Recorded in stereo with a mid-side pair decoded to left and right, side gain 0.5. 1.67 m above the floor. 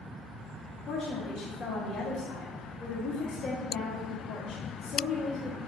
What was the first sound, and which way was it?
A woman speaking, 40° left.